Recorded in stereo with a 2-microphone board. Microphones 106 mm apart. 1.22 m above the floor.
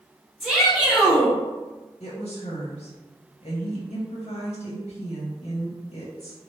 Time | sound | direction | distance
0.4 | a shout | 5° right (ahead or behind) | 1.8 m
2.0 | a woman speaking | 80° left | 0.8 m